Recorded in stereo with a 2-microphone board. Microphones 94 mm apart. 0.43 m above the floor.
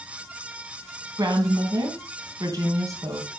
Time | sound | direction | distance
1.2 | a woman speaking | 35° right (ahead or behind) | 3 m